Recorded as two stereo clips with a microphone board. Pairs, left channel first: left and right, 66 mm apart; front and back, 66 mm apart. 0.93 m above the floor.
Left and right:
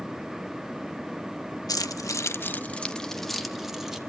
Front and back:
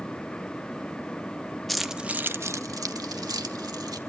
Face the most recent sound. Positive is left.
turn(degrees=-170)